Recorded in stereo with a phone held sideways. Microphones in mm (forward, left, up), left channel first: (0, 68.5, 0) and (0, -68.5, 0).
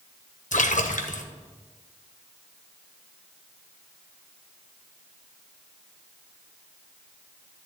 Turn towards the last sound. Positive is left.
turn(degrees=70)  # may be behind; listen again after turning